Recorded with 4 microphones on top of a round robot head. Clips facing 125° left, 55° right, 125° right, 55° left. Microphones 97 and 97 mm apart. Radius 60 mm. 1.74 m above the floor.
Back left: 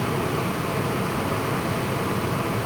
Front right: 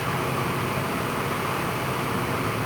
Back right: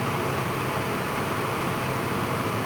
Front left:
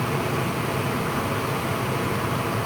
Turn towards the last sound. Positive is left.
No sound to turn to.